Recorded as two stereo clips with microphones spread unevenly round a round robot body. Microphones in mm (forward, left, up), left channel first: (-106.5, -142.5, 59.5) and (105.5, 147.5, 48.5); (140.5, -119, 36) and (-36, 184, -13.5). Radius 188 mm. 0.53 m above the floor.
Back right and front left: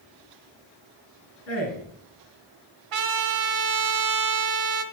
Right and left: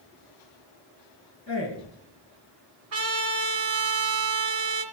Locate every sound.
1.5 s a man speaking: straight behind, 6.5 m
2.9 s a trumpet: 65° left, 1.7 m